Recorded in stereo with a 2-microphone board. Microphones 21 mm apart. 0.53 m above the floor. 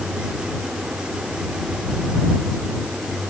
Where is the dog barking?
I don't hear a dog barking.